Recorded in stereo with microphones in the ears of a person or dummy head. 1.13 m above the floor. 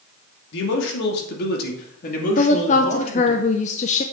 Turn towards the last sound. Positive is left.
turn(degrees=35)  # may be behind; listen again after turning